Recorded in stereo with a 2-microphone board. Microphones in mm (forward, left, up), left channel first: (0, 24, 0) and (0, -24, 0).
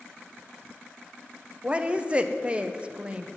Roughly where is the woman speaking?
Right.